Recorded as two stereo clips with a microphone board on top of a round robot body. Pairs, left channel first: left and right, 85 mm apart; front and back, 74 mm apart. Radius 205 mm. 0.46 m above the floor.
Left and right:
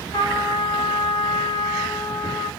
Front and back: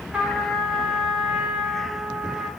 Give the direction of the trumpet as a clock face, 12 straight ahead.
9 o'clock.